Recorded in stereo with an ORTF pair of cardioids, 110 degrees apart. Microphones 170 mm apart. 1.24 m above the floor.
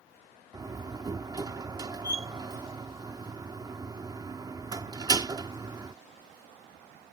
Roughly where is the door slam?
Ahead right.